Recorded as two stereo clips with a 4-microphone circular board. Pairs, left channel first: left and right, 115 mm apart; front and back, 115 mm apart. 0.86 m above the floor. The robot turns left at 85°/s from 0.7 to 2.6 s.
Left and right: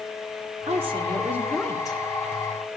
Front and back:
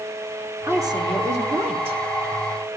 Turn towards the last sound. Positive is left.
turn(degrees=90)